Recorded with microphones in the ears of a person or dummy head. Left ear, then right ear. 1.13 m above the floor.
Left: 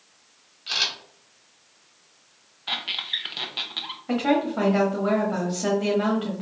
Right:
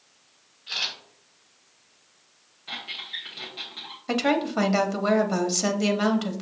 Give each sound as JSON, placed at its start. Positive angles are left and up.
{"t": 0.7, "sound": "a camera shutter", "side_deg": 80, "distance_m": 2.0}
{"t": 2.7, "sound": "a squeak", "side_deg": 30, "distance_m": 0.9}
{"t": 4.1, "sound": "a woman speaking", "side_deg": -75, "distance_m": 1.0}